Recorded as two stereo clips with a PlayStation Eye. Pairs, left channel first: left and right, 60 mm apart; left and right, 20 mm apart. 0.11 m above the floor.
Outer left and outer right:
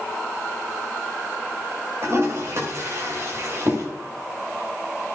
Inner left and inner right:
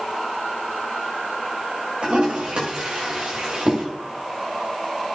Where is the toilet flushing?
55° right (ahead or behind), 5.5 m.